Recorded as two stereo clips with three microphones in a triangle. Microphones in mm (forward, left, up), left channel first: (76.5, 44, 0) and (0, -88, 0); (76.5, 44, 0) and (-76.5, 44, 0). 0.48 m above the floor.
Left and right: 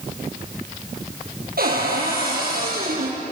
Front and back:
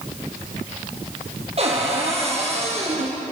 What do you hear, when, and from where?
1.6 s a cupboard door: 130° right, 6.5 m